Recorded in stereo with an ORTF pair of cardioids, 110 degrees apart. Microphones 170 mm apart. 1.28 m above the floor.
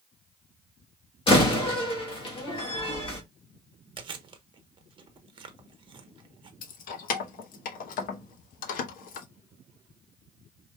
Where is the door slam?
35° left, 1.8 m.